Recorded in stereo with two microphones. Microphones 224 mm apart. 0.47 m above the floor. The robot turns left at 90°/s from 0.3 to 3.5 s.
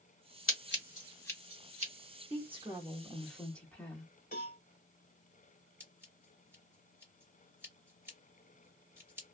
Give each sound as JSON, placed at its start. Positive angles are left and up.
{"t": 0.5, "sound": "scissors", "side_deg": 65, "distance_m": 1.1}
{"t": 2.3, "sound": "a woman speaking", "side_deg": -25, "distance_m": 1.1}
{"t": 4.3, "sound": "a cowbell", "side_deg": 40, "distance_m": 1.3}
{"t": 5.8, "sound": "scissors", "side_deg": -10, "distance_m": 1.7}